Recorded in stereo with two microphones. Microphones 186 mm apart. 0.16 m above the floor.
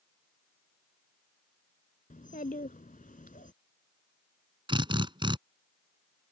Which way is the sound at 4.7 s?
25° right (ahead or behind).